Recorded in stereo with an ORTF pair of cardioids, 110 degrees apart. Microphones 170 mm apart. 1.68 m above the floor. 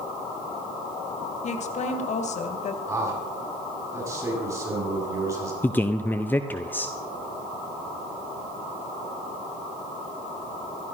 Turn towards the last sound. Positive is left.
turn(degrees=10)